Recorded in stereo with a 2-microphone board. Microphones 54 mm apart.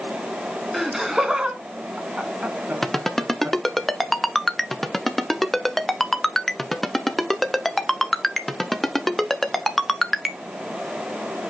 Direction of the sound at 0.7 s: Centre (ahead or behind).